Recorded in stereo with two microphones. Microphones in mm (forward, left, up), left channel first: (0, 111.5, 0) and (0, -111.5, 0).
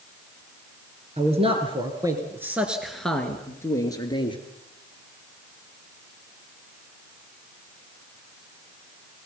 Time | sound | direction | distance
1.2 | a man speaking | 30° right (ahead or behind) | 3.5 m